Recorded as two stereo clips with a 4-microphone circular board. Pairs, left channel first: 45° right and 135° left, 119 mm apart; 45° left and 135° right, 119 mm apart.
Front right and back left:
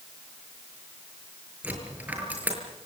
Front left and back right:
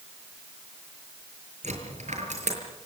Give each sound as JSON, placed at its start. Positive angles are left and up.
{"t": 1.6, "sound": "a dropped coin", "azimuth_deg": -150, "distance_m": 6.0}